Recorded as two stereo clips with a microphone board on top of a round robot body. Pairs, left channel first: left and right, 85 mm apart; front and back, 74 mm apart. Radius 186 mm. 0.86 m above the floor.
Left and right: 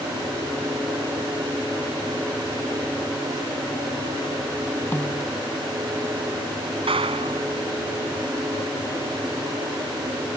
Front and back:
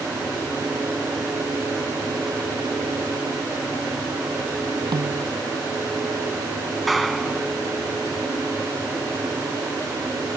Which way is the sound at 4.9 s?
155° left.